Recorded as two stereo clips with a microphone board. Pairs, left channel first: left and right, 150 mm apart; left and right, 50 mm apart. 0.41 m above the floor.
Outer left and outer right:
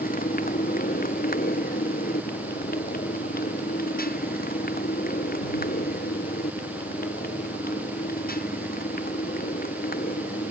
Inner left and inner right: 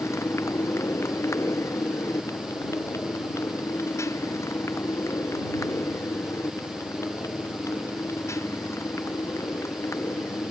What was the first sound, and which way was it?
A motorcycle, 75° left (ahead or behind).